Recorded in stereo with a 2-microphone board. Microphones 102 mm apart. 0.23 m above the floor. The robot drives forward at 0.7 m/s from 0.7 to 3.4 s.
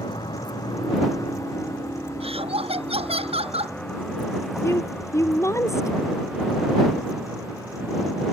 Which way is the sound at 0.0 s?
50° left (ahead or behind).